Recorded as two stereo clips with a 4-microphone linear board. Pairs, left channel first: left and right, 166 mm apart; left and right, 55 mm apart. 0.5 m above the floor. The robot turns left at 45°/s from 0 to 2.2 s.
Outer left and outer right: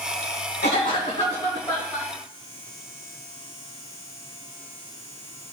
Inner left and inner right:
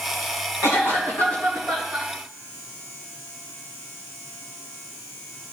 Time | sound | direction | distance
0.6 | a cough | 70° left | 3.5 m